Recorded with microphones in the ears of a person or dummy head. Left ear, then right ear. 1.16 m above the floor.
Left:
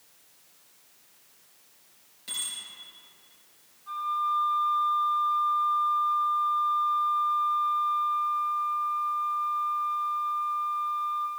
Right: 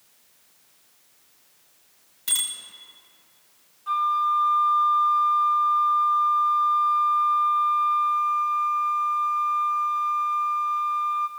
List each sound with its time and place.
2.3 s a bicycle bell: 40° right (ahead or behind), 3 m
3.9 s a flute: 55° right (ahead or behind), 0.7 m